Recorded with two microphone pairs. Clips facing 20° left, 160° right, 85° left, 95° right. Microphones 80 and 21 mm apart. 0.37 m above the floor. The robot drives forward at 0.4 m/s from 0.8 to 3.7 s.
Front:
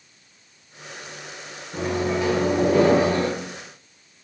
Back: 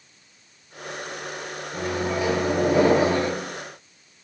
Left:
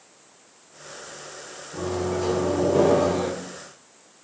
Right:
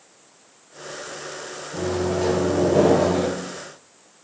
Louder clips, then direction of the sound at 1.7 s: Front 2 dB, right 3 dB; 70° right.